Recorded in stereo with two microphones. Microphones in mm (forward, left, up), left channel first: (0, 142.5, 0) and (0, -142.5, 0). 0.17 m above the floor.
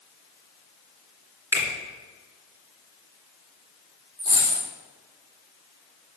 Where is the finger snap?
5° right (ahead or behind), 2 m.